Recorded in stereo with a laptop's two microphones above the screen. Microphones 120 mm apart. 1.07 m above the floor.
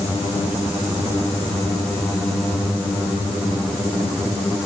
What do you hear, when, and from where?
Only background noise.